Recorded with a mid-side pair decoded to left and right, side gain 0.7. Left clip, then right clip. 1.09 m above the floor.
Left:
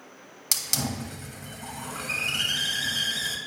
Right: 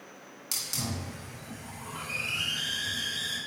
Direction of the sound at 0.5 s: 40° left.